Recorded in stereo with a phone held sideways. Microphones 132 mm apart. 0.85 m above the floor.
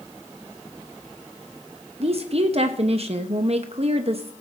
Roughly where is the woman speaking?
Right.